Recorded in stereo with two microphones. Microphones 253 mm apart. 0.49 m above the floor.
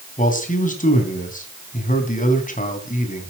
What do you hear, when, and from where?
0.2 s a man speaking: 30° left (ahead or behind), 3.5 m